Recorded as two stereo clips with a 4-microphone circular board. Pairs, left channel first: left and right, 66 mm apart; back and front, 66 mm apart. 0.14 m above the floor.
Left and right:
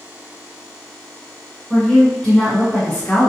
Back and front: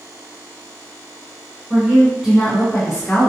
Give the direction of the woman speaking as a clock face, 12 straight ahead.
12 o'clock.